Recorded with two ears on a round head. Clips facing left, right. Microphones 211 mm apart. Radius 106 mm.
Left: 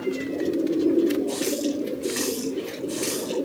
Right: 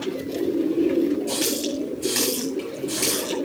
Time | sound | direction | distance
1.3 | a running tap | 65° right (ahead or behind) | 10 m